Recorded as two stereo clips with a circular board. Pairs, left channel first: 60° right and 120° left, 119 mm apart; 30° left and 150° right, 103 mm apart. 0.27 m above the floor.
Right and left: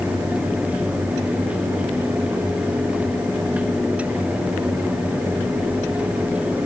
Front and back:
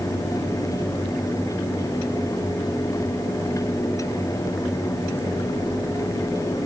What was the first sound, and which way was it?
Only background noise.